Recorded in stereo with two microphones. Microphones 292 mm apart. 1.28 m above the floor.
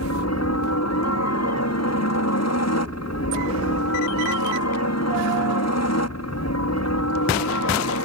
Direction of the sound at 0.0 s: 65° left (ahead or behind).